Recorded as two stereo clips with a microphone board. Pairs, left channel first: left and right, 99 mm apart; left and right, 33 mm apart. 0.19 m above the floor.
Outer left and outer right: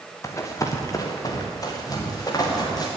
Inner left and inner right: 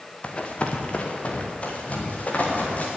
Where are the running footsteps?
30° left (ahead or behind), 2 m; by 2.9 s 40° left (ahead or behind), 4.5 m.